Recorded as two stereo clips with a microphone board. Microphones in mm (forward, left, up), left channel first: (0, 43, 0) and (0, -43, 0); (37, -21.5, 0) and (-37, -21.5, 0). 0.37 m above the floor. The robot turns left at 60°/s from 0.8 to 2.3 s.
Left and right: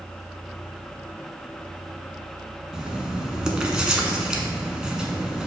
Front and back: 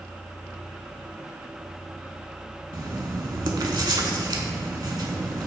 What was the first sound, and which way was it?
Writing, 170° right.